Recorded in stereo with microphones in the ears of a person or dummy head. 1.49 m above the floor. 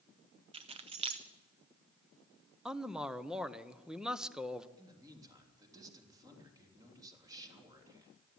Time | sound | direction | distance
0.5 | keys jangling | 30° right (ahead or behind) | 0.6 m
2.6 | a man speaking | centre (ahead or behind) | 0.7 m
4.8 | a man speaking | 15° right (ahead or behind) | 3 m